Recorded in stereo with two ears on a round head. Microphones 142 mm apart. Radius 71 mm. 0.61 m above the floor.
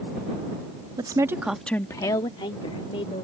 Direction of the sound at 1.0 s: 30° right (ahead or behind).